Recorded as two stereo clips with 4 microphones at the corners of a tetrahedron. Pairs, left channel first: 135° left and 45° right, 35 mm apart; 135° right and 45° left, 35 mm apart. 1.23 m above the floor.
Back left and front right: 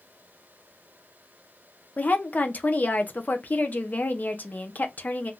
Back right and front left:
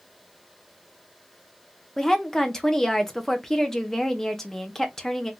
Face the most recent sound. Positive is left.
turn(degrees=150)